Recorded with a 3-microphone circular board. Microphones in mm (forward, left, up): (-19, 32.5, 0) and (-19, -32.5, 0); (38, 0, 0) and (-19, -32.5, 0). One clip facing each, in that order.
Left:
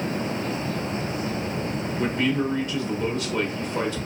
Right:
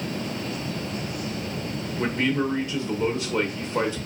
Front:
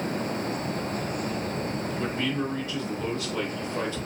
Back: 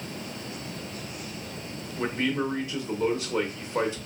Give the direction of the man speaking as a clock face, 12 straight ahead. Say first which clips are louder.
Even, back 4 dB; 4 o'clock.